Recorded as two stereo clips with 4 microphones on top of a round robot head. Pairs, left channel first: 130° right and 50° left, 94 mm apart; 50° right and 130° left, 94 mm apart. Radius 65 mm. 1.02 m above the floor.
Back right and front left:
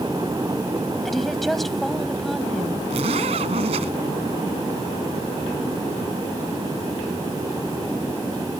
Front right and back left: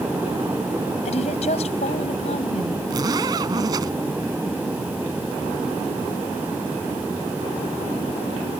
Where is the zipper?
75° left.